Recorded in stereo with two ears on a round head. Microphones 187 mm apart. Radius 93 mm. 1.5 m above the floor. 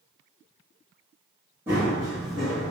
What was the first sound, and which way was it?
Running footsteps, 10° right (ahead or behind).